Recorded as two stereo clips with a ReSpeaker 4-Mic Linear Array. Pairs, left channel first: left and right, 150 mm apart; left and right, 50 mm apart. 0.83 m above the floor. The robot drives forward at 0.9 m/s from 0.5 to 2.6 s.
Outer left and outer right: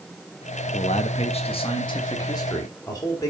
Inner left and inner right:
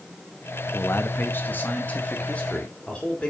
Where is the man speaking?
50° left (ahead or behind), 1.1 m; by 3.3 s 25° left (ahead or behind), 2 m.